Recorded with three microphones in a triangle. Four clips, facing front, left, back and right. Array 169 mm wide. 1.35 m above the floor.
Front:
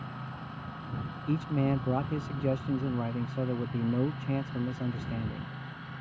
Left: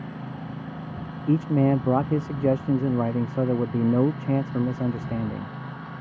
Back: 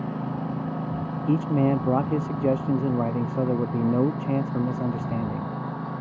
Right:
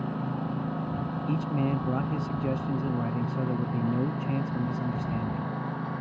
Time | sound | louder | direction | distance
0.0 | a lawn mower | right 4 dB, back 12 dB | 155° right | ?
1.3 | a man speaking | left 9 dB, back 7 dB | 125° left | ?